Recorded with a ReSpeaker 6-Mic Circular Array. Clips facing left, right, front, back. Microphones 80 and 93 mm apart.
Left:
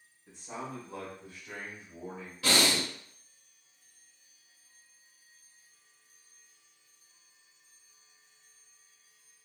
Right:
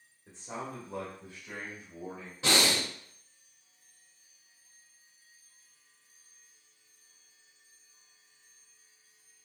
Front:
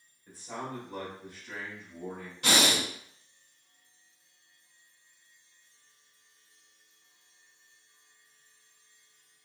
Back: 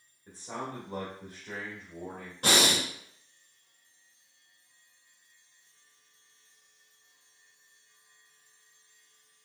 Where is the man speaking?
125° right, 1.1 m; by 2.3 s 165° left, 1.5 m.